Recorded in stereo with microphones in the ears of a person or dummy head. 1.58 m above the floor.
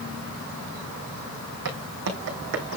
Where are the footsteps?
65° right (ahead or behind), 3.5 m; by 2.8 s 60° right (ahead or behind), 3.5 m.